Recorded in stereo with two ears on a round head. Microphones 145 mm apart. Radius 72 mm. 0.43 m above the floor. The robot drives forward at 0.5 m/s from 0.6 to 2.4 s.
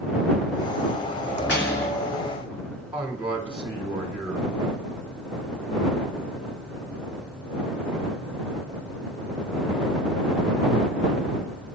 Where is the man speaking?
5° right (ahead or behind), 1.1 m.